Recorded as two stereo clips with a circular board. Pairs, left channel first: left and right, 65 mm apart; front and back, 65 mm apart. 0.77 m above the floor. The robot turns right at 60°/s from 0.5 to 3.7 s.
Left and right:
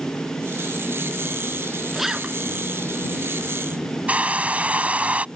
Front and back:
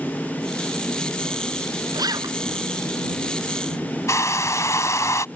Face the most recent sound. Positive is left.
turn(degrees=-25)